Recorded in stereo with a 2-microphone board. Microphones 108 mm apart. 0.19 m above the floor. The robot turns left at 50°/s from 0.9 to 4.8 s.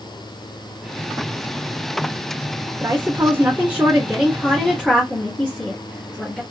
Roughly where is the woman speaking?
Right.